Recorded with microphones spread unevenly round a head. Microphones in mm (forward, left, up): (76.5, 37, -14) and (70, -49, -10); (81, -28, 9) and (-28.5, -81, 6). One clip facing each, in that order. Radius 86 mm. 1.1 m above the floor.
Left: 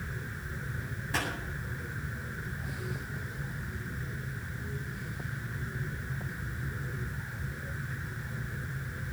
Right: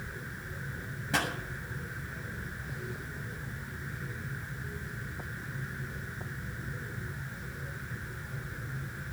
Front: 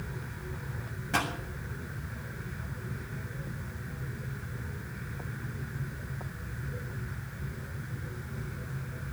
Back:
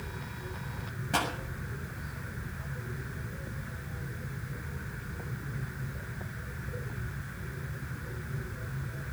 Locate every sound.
1.1 s a pop: 85° right, 6.5 m